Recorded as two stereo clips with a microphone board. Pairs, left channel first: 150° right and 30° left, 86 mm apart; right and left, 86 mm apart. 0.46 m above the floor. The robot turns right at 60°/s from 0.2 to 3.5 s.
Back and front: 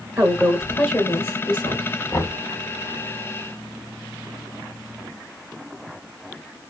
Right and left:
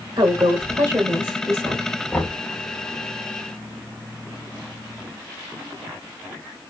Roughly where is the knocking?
Behind right.